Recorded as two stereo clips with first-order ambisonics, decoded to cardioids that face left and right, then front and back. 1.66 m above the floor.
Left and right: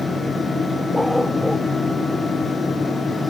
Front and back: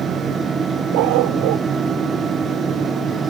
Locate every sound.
0.9 s a dog barking: straight behind